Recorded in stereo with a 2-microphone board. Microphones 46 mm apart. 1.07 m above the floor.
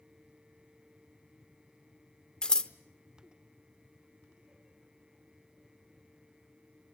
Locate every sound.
2.4 s scissors: 15° left (ahead or behind), 0.7 m